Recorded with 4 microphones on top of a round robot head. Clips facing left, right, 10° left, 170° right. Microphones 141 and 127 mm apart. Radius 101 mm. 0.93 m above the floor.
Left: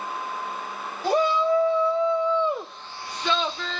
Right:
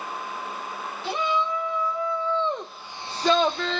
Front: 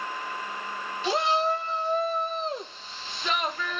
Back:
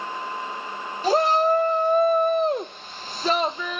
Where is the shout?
145° left, 1.5 m; by 3.8 s 90° right, 0.7 m.